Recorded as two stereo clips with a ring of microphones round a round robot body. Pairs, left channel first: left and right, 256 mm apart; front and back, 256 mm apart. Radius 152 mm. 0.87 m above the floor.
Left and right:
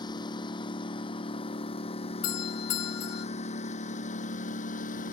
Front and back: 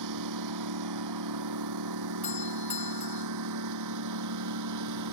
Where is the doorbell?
65° left.